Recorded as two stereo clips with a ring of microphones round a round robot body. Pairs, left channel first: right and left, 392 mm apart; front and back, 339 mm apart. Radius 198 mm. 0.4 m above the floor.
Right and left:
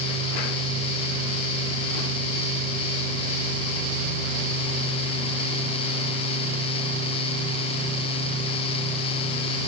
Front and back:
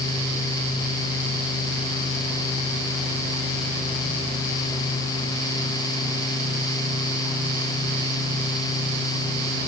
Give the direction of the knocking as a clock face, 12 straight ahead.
I don't hear knocking.